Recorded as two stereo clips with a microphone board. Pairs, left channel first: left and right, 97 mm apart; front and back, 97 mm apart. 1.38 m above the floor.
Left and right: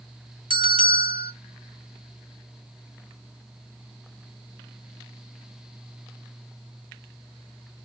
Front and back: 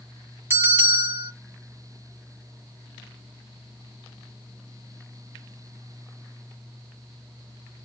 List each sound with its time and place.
0.5 s a bell: 115° right, 3 m